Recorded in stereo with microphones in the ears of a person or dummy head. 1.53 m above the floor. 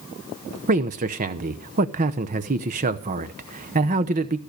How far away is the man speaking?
About 0.9 m.